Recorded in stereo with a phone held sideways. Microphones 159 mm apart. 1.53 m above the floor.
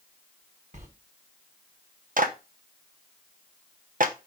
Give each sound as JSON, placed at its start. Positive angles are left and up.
{"t": 0.7, "sound": "a sliding door", "side_deg": -50, "distance_m": 1.3}
{"t": 2.2, "sound": "a clap", "side_deg": -60, "distance_m": 0.8}